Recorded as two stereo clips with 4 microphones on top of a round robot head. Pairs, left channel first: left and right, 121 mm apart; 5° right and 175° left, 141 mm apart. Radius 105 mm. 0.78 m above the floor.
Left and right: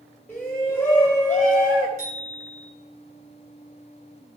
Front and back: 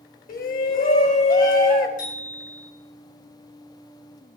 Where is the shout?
10° left, 3.5 m.